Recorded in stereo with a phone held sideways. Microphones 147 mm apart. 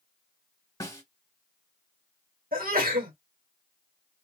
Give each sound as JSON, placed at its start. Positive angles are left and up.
{"t": 0.8, "sound": "a snare drum", "side_deg": 25, "distance_m": 1.3}
{"t": 2.5, "sound": "a sneeze", "side_deg": -80, "distance_m": 1.9}